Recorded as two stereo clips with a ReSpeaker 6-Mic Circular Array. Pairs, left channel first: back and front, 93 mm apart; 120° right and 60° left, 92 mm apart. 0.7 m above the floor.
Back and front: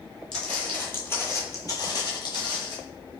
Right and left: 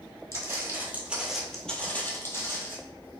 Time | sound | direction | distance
0.3 | footsteps | 100° left | 1.0 m